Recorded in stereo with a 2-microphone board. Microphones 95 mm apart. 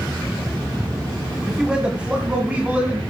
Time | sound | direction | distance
1.5 | a man speaking | 10° right (ahead or behind) | 1.7 m